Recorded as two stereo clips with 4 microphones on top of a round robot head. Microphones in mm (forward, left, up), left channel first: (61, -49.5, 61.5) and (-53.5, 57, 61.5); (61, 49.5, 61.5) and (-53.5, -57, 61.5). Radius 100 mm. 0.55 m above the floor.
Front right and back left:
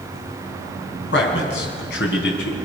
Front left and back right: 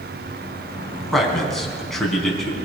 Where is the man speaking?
45° right, 4.5 m.